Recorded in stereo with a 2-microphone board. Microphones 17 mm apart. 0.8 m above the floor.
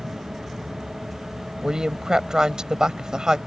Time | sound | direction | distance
0.0 | an aircraft | 70° right (ahead or behind) | ?
1.6 | a woman speaking | 50° right (ahead or behind) | ?